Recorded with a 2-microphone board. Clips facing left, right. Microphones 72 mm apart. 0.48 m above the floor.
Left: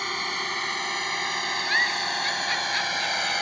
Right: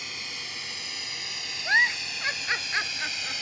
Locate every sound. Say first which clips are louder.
0.0 s a drone: left 11 dB; 55° left (ahead or behind); by 3.4 s 60° left (ahead or behind)
1.6 s a giggle: right 3 dB; 25° right (ahead or behind)